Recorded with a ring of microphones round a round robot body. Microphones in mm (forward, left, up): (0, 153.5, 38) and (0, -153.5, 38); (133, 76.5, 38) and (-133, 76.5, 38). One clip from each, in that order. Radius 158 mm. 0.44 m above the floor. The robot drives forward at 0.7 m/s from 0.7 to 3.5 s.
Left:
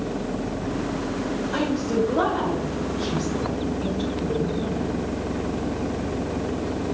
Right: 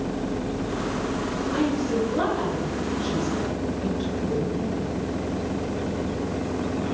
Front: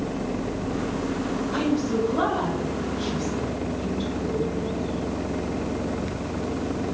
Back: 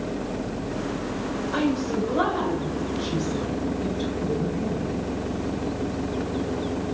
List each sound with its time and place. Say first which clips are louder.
1.5 s a woman speaking: left 1 dB, even; 125° left, 2.5 m; by 4.9 s 145° left, 3.5 m